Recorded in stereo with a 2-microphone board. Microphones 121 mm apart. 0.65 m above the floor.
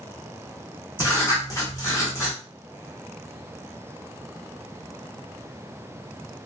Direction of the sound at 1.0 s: 25° left (ahead or behind).